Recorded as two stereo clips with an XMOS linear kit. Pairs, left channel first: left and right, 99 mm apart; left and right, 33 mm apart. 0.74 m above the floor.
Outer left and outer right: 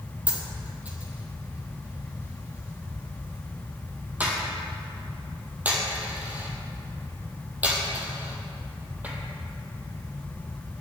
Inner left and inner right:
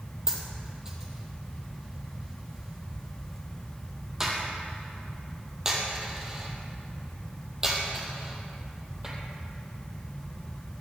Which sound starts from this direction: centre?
A dropped coin, at 0.3 s.